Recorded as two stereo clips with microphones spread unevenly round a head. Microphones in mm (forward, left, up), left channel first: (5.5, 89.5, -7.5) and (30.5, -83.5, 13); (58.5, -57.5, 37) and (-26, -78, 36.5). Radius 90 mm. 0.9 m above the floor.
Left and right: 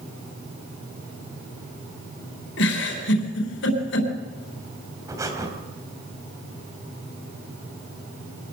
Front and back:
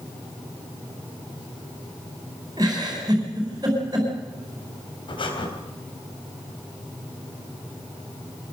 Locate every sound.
2.6 s a giggle: 125° left, 4 m
5.1 s breathing: 10° right, 4 m